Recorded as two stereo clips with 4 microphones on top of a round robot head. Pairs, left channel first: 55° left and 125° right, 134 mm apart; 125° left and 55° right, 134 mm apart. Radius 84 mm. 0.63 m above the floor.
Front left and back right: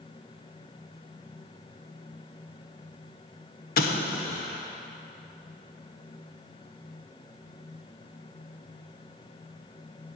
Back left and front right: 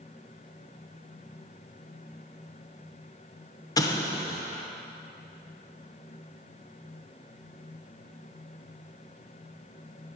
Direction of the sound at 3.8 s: 65° left.